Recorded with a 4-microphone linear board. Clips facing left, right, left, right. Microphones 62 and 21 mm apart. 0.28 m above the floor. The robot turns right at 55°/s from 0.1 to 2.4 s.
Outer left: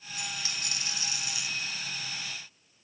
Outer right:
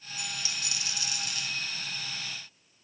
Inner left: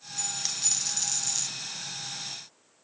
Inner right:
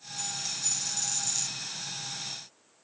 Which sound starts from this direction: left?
A dropped coin, at 0.2 s.